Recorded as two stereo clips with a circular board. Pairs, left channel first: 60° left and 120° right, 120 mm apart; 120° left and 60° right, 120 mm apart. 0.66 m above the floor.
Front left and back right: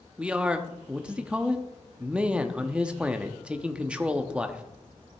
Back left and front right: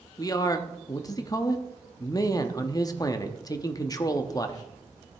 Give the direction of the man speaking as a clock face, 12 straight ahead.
7 o'clock.